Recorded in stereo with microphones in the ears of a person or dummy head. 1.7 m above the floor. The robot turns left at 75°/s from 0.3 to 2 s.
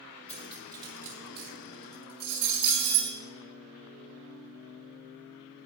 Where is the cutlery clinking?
5° left (ahead or behind), 1.4 m; by 3.2 s 50° right (ahead or behind), 1.4 m.